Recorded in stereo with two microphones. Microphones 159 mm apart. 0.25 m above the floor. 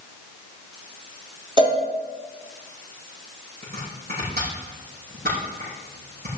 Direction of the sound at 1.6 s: 30° right (ahead or behind).